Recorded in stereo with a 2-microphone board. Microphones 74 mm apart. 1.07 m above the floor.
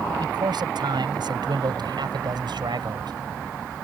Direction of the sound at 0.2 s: 75° right (ahead or behind).